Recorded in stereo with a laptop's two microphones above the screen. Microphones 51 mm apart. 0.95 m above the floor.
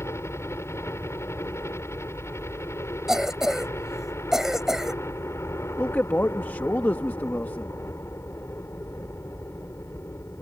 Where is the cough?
10° right (ahead or behind).